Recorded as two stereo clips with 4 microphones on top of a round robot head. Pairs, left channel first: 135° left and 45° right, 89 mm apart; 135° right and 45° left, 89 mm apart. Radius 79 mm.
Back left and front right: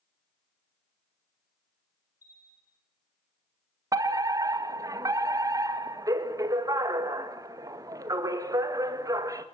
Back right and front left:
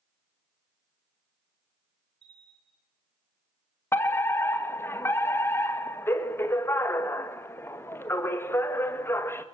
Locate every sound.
2.2 s a bell: 80° left, 10 m
3.9 s a fire alarm: 80° right, 2 m